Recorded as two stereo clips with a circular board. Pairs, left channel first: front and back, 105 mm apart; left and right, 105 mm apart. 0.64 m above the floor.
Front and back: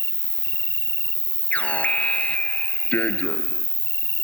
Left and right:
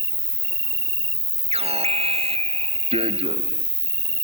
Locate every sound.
0.0 s an insect: 60° right
1.5 s an alarm: 75° right